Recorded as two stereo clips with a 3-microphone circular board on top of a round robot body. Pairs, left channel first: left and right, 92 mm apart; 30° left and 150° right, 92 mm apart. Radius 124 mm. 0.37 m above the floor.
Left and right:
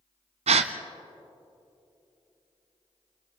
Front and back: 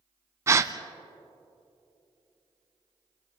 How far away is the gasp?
About 0.8 m.